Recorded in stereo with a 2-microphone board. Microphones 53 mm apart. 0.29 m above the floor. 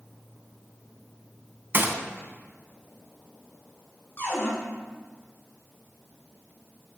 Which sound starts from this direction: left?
A cupboard door, at 4.2 s.